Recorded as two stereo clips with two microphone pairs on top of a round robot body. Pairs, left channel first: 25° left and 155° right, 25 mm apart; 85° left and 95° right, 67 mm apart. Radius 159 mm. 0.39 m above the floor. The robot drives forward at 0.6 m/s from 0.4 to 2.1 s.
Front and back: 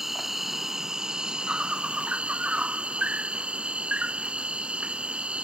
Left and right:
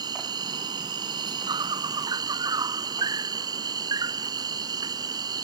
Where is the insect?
80° right; by 5.5 s 110° right.